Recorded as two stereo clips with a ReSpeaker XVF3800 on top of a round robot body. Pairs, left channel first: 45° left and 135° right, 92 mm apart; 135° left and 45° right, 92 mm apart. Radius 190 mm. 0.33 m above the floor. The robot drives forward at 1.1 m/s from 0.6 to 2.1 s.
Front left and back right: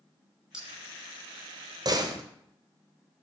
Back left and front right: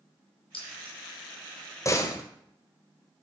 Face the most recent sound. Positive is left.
turn(degrees=-175)